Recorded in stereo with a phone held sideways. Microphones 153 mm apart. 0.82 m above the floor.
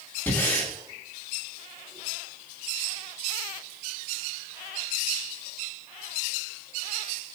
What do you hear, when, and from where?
0.3 s breathing: 15° left (ahead or behind), 2 m